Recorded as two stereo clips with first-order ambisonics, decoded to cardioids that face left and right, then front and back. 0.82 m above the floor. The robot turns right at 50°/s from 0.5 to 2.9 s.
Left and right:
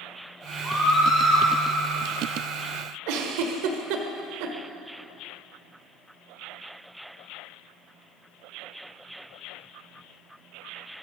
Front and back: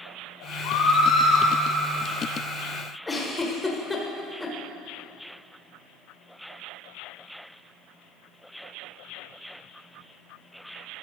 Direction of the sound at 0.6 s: Straight ahead.